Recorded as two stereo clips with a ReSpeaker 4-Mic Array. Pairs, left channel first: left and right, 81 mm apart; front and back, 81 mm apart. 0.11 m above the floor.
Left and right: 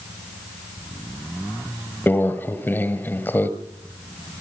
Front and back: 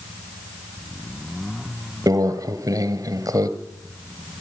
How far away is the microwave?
About 2 m.